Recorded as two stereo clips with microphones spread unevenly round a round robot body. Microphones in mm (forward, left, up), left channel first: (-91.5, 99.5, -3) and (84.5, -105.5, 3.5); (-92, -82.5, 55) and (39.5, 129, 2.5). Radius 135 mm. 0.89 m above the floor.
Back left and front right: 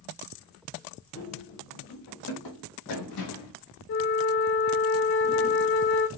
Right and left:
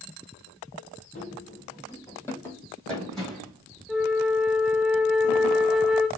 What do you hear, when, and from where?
1.1 s running footsteps: 170° right, 1.7 m; by 3.5 s 150° left, 3 m
3.9 s a flute: 165° left, 0.6 m